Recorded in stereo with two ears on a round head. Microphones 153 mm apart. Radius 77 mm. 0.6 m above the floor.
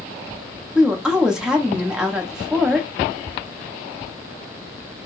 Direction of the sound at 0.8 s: 5° right (ahead or behind).